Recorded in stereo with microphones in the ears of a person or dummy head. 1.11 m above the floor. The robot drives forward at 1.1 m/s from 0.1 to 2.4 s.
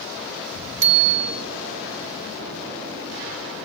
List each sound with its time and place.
0.8 s a bicycle bell: 60° right (ahead or behind); by 1.4 s 50° right (ahead or behind)